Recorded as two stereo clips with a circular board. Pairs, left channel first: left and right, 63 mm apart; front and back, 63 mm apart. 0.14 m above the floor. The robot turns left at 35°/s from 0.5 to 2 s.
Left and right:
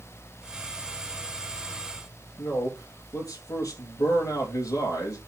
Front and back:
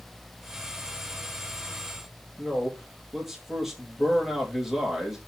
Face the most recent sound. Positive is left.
turn(degrees=95)